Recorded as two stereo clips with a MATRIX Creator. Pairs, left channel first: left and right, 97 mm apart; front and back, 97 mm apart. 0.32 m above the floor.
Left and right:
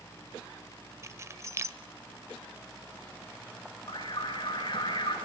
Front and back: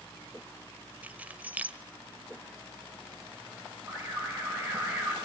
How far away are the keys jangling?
About 0.7 m.